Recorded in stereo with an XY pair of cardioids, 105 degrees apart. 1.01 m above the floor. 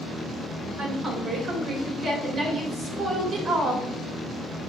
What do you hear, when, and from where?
0.8 s a woman speaking: 55° right, 3.5 m